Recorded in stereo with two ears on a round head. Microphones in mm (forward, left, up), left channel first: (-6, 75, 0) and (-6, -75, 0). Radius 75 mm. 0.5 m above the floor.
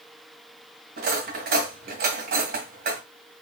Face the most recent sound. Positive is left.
turn(degrees=-60)  # may be behind; listen again after turning